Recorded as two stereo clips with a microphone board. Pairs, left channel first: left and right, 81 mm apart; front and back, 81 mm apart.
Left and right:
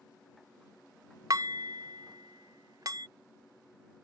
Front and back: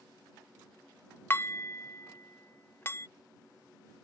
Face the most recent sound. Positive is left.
turn(degrees=-60)